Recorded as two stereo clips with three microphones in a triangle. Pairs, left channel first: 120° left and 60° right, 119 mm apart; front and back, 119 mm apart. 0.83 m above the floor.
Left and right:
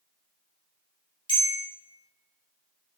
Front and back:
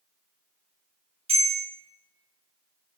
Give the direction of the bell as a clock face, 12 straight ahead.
7 o'clock.